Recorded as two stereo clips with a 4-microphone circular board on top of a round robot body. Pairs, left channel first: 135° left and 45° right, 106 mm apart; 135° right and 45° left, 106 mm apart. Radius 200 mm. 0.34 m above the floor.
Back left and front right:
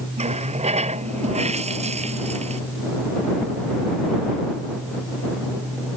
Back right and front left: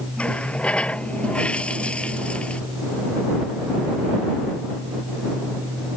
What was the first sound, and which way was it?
A running tap, 55° right.